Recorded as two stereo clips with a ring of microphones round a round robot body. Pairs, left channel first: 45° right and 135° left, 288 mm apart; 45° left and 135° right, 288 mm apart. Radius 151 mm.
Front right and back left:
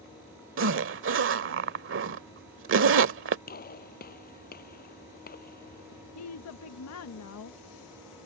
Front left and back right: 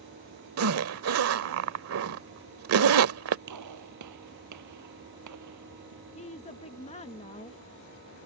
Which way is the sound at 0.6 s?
175° right.